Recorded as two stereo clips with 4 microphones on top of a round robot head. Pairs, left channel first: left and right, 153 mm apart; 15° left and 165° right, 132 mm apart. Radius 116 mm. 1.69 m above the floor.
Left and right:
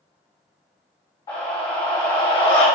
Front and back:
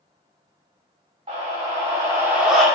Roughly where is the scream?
Behind left.